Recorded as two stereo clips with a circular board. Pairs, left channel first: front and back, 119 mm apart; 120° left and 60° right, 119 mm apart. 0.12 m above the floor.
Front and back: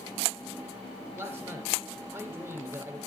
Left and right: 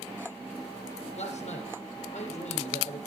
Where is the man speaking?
120° left, 3.5 m.